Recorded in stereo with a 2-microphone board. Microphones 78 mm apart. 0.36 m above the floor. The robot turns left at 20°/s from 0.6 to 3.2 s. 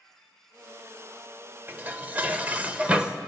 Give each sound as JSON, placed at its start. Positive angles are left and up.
{"t": 1.7, "sound": "dishes clattering", "azimuth_deg": -125, "distance_m": 0.7}